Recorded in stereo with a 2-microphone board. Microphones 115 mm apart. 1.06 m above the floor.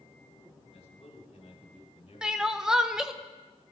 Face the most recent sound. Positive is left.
turn(degrees=-5)  # may be behind; listen again after turning